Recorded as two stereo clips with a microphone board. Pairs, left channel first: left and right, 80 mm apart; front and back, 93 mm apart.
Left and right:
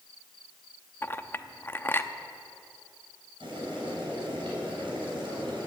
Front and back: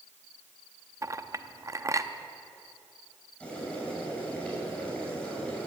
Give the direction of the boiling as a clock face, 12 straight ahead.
3 o'clock.